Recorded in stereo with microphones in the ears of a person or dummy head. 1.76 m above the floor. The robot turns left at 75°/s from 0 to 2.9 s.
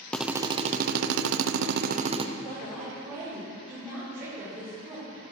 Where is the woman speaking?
30° left, 6 m; by 5.3 s 10° right, 6 m.